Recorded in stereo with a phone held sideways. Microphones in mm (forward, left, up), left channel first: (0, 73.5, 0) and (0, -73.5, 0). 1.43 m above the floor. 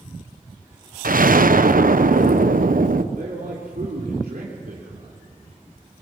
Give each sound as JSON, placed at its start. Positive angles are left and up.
{"t": 1.0, "sound": "an explosion", "side_deg": -75, "distance_m": 0.8}
{"t": 3.1, "sound": "a man speaking", "side_deg": -75, "distance_m": 3.5}